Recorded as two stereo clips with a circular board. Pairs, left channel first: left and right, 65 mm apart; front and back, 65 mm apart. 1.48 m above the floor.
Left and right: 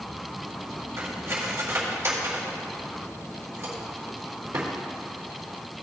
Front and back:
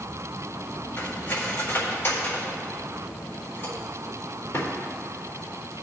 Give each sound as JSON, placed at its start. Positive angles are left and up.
{"t": 1.0, "sound": "cutlery clinking", "azimuth_deg": -45, "distance_m": 3.0}